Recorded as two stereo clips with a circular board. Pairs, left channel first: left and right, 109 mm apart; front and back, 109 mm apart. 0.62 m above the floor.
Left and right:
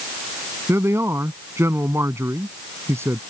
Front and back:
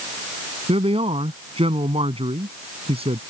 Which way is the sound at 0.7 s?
155° right.